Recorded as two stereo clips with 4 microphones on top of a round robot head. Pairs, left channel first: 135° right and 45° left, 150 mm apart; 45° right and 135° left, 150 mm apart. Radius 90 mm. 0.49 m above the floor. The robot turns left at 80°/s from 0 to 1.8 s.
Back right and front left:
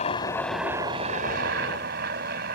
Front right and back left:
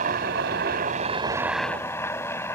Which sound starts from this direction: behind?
A helicopter, at 0.0 s.